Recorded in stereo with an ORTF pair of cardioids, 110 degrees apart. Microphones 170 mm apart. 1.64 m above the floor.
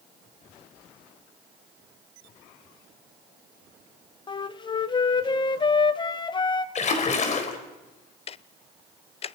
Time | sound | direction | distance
4.3 | a flute | 25° left | 1.2 m
6.8 | a splash | 45° left | 4 m
8.3 | ticking | 35° left | 0.6 m